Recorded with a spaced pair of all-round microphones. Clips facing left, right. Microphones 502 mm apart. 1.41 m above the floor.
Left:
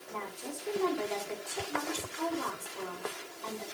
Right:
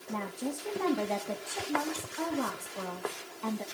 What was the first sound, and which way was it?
A woman speaking, 85° right.